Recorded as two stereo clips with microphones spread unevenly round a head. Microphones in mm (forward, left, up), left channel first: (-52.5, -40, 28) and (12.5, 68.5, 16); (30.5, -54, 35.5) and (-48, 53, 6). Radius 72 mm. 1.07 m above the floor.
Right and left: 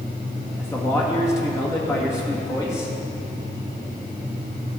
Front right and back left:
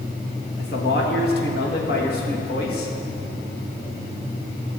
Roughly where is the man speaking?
Ahead right.